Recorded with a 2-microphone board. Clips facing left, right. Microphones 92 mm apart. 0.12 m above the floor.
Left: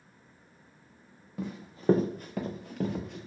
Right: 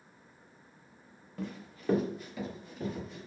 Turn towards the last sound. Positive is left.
turn(degrees=80)